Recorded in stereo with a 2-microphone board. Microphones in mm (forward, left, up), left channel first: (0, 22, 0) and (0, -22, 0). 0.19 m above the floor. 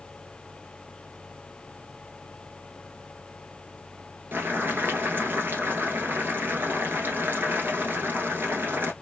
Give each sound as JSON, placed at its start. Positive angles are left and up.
{"t": 4.3, "sound": "boiling", "side_deg": -50, "distance_m": 1.0}